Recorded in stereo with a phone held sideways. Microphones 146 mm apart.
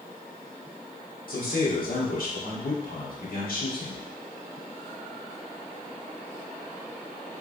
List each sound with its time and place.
1.3 s a man speaking: 65° left (ahead or behind), 1.8 m